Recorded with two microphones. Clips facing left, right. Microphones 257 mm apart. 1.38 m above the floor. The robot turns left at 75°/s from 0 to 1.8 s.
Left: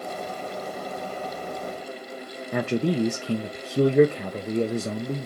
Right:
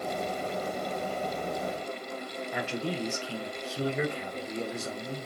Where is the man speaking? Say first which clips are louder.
Left 10 dB; 55° left (ahead or behind), 0.8 m.